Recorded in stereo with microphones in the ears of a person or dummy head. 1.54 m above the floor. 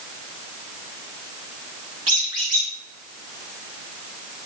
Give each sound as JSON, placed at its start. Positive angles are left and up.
{"t": 2.1, "sound": "a squeak", "side_deg": -45, "distance_m": 1.3}